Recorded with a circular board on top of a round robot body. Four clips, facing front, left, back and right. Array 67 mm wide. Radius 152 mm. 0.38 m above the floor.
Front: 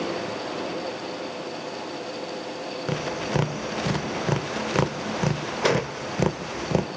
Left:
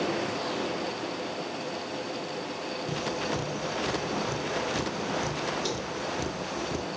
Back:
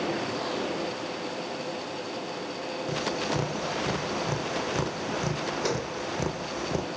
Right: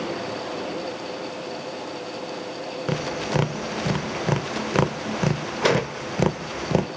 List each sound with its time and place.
2.9 s tapping: 60° right, 0.6 m